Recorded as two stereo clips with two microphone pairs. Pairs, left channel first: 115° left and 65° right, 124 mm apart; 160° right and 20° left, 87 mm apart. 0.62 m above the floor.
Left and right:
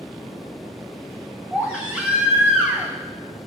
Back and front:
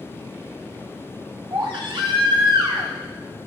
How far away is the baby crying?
About 1.8 m.